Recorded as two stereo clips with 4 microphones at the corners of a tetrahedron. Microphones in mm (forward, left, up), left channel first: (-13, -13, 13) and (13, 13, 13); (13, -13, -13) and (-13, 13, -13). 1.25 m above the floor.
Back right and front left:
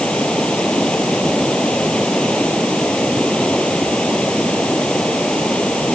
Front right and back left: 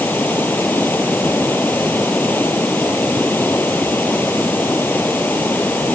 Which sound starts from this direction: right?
Running water, at 0.0 s.